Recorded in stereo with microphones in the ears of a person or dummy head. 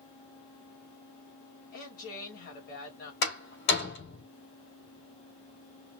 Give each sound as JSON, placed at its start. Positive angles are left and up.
{"t": 1.7, "sound": "a woman speaking", "side_deg": 50, "distance_m": 2.0}
{"t": 3.2, "sound": "a door slam", "side_deg": 65, "distance_m": 3.5}